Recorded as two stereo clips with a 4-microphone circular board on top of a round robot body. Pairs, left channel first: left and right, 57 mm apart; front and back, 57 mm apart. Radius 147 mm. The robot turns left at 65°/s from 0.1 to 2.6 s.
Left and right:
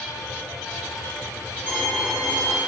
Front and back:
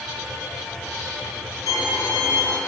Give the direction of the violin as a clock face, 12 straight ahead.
1 o'clock.